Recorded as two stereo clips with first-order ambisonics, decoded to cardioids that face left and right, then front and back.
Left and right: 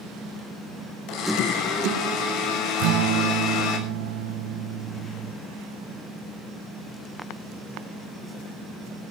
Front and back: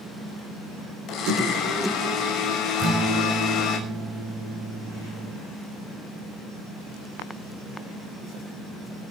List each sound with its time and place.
1.1 s a blender: 55° left, 6 m
2.8 s a guitar: 115° right, 3 m